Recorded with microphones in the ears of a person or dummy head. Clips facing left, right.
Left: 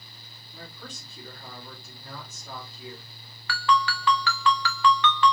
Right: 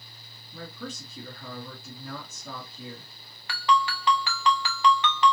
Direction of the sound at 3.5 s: 25° right (ahead or behind).